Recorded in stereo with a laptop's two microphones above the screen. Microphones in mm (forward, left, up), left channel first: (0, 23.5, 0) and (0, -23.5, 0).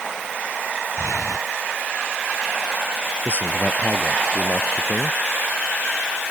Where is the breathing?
85° left.